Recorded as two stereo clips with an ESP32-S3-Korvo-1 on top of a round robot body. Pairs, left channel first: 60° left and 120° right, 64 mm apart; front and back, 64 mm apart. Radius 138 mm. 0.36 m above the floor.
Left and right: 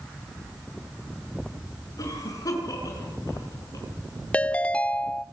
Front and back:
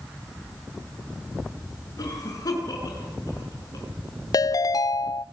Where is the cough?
30° left, 7 m.